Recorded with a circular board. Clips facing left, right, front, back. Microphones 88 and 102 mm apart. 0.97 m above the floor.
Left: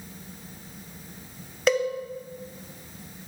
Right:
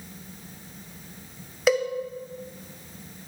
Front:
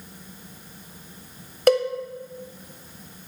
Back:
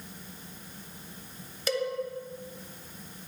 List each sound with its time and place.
1.7 s a cowbell: 5° right, 0.6 m